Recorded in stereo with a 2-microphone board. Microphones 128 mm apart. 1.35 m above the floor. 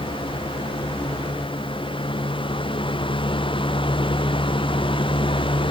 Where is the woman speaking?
I don't hear a woman speaking.